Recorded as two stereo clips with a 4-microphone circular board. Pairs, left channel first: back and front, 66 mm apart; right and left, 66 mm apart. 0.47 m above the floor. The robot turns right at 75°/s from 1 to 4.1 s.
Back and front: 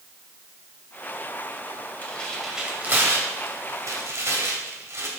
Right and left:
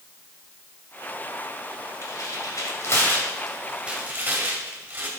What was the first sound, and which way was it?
Tearing paper, 120° right.